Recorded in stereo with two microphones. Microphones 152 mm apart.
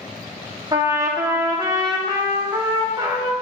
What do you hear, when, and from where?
0.7 s a trumpet: 25° right (ahead or behind), 0.6 m